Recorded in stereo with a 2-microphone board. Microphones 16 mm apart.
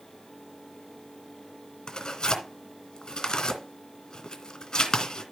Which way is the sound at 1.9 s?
45° left (ahead or behind).